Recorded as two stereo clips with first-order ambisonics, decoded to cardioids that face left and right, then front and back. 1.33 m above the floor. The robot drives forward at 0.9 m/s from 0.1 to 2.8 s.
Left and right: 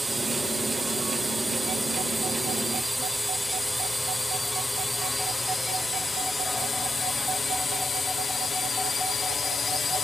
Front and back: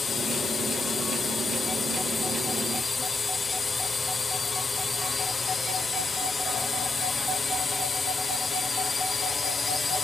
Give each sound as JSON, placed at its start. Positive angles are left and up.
{"t": 0.0, "sound": "a drone", "azimuth_deg": -15}